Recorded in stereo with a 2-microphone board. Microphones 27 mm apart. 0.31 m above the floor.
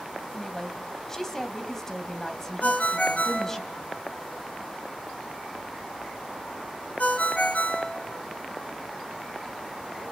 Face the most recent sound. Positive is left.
turn(degrees=70)  # may be behind; listen again after turning